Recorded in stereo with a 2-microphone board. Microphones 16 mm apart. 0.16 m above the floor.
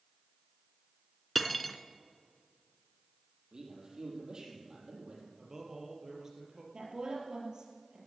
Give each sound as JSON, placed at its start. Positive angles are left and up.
{"t": 1.4, "sound": "cutlery clinking", "side_deg": 10, "distance_m": 0.9}
{"t": 3.5, "sound": "a man speaking", "side_deg": -45, "distance_m": 6.5}
{"t": 5.4, "sound": "a man speaking", "side_deg": -30, "distance_m": 3.5}
{"t": 6.7, "sound": "a woman speaking", "side_deg": -45, "distance_m": 4.5}